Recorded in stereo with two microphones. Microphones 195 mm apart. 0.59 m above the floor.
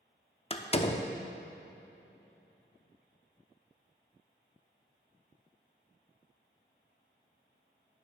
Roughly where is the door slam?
Left.